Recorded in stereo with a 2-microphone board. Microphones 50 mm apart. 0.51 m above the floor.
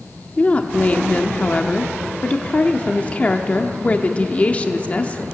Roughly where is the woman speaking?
Left.